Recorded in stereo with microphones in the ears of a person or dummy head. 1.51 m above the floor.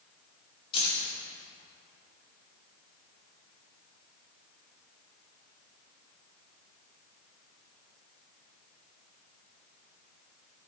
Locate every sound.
0.7 s keys jangling: 25° left (ahead or behind), 2.5 m